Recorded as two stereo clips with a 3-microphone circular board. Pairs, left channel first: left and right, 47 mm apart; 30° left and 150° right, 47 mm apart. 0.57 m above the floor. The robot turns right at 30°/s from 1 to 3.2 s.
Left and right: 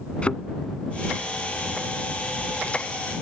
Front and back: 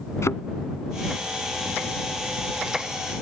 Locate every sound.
0.2 s a thud: 25° left